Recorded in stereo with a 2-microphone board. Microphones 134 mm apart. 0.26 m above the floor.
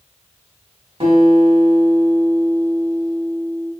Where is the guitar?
45° right (ahead or behind), 1.2 m.